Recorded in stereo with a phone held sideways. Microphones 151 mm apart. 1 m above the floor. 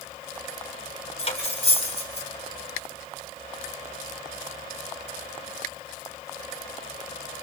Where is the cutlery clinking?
40° left (ahead or behind), 2.5 m.